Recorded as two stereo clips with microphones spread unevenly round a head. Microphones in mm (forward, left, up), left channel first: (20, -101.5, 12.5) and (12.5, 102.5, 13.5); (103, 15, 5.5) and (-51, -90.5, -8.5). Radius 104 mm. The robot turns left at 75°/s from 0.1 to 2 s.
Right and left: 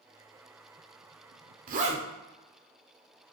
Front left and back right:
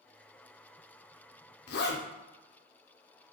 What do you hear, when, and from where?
1.7 s a zipper: 60° left, 0.7 m; by 2.1 s 35° left, 0.7 m